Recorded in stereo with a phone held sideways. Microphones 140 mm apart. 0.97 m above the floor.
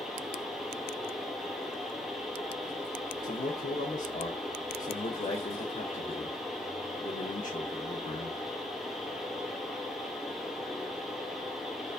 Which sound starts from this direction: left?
A man speaking, at 3.2 s.